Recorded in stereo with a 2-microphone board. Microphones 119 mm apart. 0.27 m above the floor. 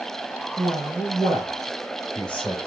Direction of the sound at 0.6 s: 5° right (ahead or behind).